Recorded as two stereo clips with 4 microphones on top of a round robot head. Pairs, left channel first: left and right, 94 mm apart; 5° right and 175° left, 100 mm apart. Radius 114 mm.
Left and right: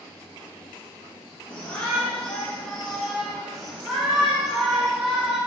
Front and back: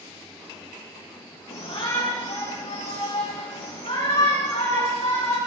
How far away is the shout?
About 6 m.